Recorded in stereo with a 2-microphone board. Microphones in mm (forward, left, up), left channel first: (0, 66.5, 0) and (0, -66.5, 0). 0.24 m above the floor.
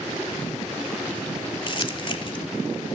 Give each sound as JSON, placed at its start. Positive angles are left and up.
{"t": 1.7, "sound": "crumpling", "side_deg": 40, "distance_m": 0.6}